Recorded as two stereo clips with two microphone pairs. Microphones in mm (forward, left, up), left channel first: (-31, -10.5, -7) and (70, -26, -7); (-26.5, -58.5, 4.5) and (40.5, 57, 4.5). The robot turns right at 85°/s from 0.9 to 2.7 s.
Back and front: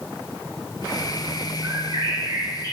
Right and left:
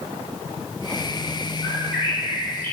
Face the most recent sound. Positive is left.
turn(degrees=25)